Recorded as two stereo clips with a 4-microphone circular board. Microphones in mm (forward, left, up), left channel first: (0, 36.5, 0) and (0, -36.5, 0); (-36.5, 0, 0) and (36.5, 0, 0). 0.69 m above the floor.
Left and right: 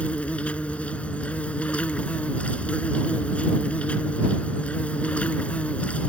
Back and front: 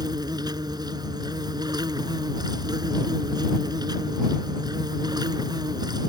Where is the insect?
20° left.